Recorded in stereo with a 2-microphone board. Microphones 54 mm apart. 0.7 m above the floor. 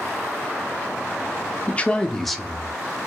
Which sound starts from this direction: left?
A man speaking, at 1.7 s.